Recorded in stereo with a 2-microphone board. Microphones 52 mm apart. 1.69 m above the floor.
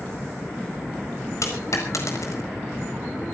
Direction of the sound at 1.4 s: 70° left (ahead or behind).